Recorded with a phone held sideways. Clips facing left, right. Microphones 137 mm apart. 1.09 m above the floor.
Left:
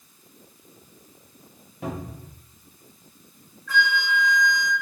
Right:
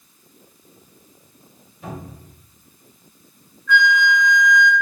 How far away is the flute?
About 0.6 m.